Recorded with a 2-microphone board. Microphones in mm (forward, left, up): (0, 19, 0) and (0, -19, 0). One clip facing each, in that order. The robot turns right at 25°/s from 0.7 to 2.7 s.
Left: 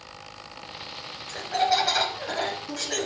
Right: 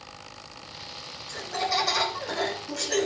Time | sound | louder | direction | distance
1.3 | laughter | left 5 dB | 135° left | 5.5 m